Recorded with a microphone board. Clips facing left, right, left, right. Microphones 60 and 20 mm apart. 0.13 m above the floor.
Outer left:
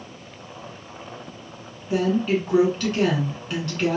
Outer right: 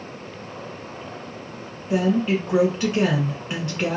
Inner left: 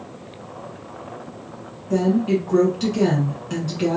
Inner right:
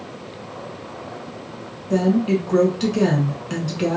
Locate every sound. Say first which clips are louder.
1.9 s a woman speaking: outer right 1 dB, inner right 1 dB; 20° right (ahead or behind), 1.1 m